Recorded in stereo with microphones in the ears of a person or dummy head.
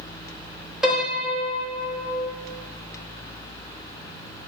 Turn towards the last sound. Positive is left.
turn(degrees=-5)  # may be behind; listen again after turning